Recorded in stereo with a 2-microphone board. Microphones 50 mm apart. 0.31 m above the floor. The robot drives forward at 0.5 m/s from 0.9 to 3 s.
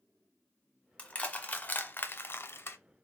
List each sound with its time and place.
1.0 s crushing: 25° left (ahead or behind), 0.9 m; by 2.8 s 45° left (ahead or behind), 0.5 m